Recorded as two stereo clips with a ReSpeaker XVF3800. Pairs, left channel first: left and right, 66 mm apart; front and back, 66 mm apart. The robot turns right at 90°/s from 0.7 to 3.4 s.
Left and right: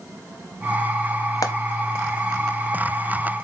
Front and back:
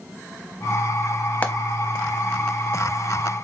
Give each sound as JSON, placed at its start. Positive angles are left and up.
{"t": 1.4, "sound": "frying", "azimuth_deg": 65, "distance_m": 0.5}